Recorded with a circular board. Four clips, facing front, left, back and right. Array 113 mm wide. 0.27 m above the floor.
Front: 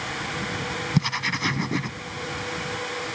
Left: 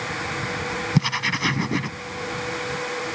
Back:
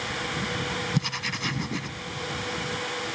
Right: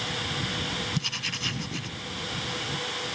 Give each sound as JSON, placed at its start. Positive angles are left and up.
{"t": 0.9, "sound": "writing", "azimuth_deg": 65}